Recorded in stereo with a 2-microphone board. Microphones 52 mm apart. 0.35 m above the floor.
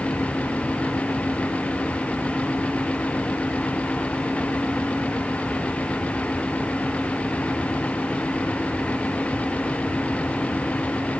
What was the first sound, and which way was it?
Only background noise.